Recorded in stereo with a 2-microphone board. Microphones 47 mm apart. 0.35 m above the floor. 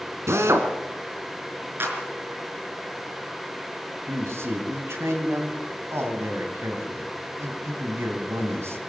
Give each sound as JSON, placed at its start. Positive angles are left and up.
{"t": 0.3, "sound": "a drill", "side_deg": -75, "distance_m": 2.5}
{"t": 1.8, "sound": "a clap", "side_deg": -50, "distance_m": 4.5}
{"t": 4.1, "sound": "a man speaking", "side_deg": -65, "distance_m": 3.5}